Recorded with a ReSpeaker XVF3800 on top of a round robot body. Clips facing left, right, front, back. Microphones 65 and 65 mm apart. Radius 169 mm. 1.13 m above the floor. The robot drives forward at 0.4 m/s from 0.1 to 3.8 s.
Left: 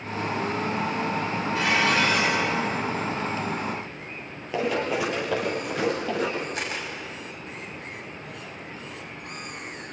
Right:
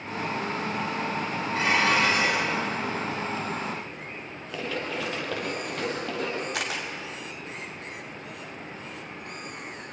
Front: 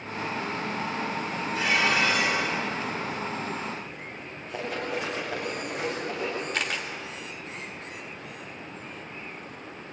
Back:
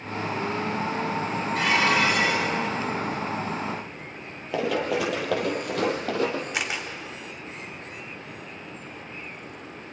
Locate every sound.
1.6 s dishes clattering: 135° right, 8 m; by 2.7 s 140° right, 8.5 m
4.5 s running footsteps: 165° left, 1.8 m; by 6.4 s straight behind, 3 m
6.5 s a camera shutter: 100° right, 3 m